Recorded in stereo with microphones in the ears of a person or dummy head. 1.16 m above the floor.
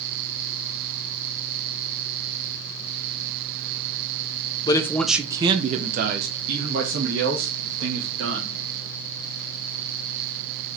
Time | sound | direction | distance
4.7 | a man speaking | 25° left (ahead or behind) | 0.7 m